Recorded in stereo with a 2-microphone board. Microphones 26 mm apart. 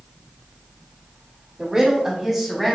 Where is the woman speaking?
30° right (ahead or behind), 1.2 m; by 2.8 s 5° left (ahead or behind), 1.3 m.